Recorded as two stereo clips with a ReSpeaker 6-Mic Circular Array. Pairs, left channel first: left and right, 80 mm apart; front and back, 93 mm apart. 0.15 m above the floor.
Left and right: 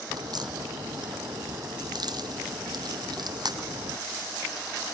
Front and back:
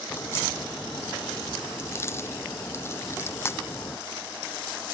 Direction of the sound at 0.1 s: 60° right.